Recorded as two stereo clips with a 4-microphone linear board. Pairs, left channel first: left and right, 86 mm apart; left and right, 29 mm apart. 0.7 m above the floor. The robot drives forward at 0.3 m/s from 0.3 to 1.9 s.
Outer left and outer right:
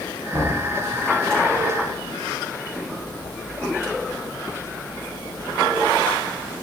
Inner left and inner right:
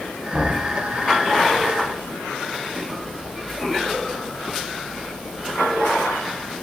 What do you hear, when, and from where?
0.3 s knocking: 35° right (ahead or behind), 3.5 m